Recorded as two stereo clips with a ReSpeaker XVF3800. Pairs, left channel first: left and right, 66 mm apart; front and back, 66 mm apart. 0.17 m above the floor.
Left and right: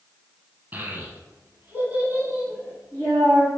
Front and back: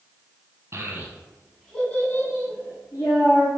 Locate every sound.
0.7 s a child speaking: 145° right, 1.0 m; by 3.5 s 10° right, 1.6 m